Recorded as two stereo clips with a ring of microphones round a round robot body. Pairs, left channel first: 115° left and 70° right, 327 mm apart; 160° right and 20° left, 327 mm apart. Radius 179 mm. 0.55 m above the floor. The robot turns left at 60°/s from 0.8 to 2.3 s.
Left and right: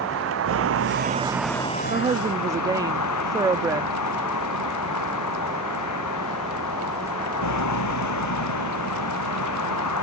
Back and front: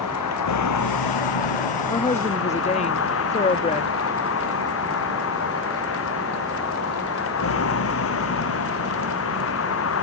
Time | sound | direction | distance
0.0 | a vehicle | 120° right | ?
1.9 | a woman speaking | 105° right | ?